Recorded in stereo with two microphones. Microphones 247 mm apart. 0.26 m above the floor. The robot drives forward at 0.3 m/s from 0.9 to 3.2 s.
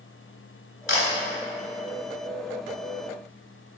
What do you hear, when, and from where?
0.9 s a camera shutter: 45° left (ahead or behind), 0.8 m; by 1.1 s 50° left (ahead or behind), 0.8 m